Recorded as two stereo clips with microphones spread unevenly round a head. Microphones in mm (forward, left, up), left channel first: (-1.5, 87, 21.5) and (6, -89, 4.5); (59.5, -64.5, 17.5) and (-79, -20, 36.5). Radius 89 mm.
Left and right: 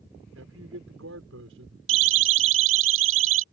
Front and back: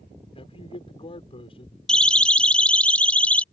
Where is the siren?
105° right; by 3.4 s 100° right.